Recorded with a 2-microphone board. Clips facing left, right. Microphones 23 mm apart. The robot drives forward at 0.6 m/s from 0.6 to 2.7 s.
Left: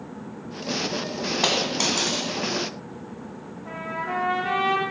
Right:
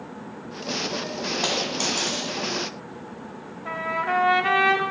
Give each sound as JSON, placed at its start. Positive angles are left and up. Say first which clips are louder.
{"t": 1.4, "sound": "a dropped coin", "louder": "left 3 dB", "side_deg": 25, "distance_m": 1.2}
{"t": 3.6, "sound": "a trumpet", "louder": "right 5 dB", "side_deg": -60, "distance_m": 1.0}